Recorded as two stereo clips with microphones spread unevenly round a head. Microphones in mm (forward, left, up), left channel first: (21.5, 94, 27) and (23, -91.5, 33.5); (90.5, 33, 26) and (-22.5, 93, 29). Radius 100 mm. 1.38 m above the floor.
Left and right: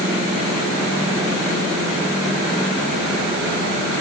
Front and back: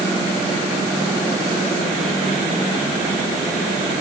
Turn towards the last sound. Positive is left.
No sound to turn to.